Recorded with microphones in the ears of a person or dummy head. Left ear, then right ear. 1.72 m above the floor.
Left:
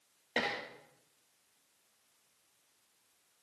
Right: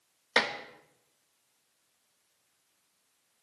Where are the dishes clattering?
55° right (ahead or behind), 1.6 m.